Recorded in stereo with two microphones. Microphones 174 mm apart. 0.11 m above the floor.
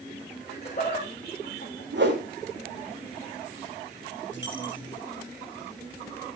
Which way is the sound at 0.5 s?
35° left (ahead or behind).